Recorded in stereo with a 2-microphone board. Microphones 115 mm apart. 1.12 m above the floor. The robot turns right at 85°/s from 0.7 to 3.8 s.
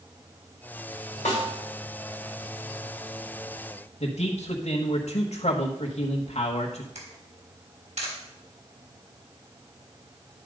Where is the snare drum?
85° left, 3.5 m; by 1.5 s 70° left (ahead or behind), 3.5 m.